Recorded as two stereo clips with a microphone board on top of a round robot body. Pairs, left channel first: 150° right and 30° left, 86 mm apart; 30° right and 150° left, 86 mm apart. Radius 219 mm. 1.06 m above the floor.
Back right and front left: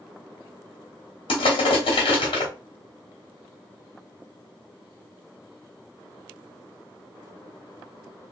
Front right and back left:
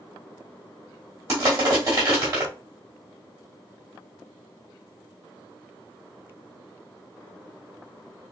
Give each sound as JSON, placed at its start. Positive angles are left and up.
{"t": 1.3, "sound": "crushing", "azimuth_deg": -150, "distance_m": 1.0}